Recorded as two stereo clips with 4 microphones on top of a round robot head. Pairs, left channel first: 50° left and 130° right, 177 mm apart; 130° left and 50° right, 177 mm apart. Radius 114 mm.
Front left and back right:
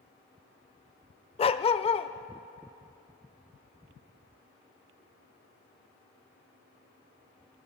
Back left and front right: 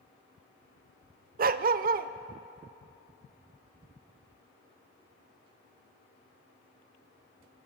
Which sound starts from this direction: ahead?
A dog barking, at 1.4 s.